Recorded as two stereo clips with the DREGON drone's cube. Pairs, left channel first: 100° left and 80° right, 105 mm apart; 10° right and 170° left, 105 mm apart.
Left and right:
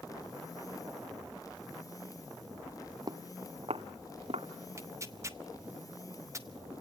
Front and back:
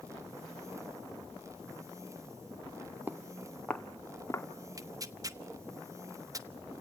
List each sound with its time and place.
3.1 s footsteps: 120° right, 1.4 m; by 4.5 s 75° right, 2.5 m
4.8 s tearing paper: 135° right, 1.2 m